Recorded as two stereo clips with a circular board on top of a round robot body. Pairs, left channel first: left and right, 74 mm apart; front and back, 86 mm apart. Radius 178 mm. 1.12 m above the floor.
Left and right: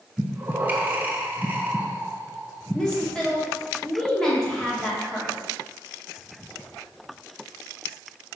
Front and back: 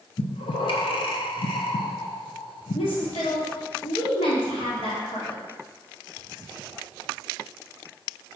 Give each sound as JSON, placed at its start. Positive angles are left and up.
{"t": 0.2, "sound": "breathing", "azimuth_deg": -25, "distance_m": 0.5}
{"t": 2.7, "sound": "a woman speaking", "azimuth_deg": 5, "distance_m": 2.5}